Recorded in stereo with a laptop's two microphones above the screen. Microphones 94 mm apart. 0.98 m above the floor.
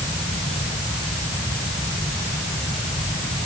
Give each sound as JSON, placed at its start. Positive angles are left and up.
{"t": 0.0, "sound": "a fan", "side_deg": 30}